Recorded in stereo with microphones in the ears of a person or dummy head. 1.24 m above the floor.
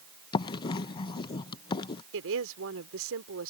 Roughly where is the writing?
Left.